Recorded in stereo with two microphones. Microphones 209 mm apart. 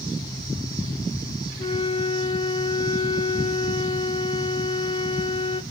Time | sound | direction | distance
1.6 | a flute | 25° left (ahead or behind) | 0.6 m